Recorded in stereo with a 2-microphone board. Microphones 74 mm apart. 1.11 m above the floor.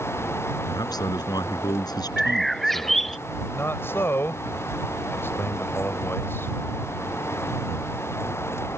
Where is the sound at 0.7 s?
65° left (ahead or behind).